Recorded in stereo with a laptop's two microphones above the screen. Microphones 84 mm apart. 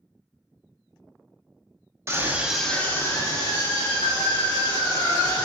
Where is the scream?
35° right (ahead or behind), 0.6 m; by 5.5 s 75° left (ahead or behind), 1.9 m.